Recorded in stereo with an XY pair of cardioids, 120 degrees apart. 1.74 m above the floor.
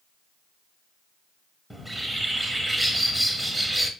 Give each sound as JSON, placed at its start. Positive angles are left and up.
{"t": 1.7, "sound": "a bird", "azimuth_deg": 0, "distance_m": 0.8}